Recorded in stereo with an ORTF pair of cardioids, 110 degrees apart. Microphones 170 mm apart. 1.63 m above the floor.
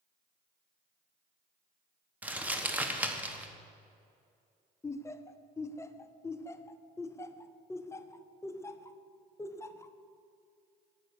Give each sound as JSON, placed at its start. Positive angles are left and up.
{"t": 2.2, "sound": "crumpling", "azimuth_deg": -10, "distance_m": 1.1}
{"t": 4.8, "sound": "laughter", "azimuth_deg": 15, "distance_m": 0.6}